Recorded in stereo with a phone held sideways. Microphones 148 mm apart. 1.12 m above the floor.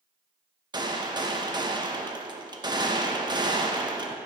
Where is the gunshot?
30° right (ahead or behind), 0.9 m.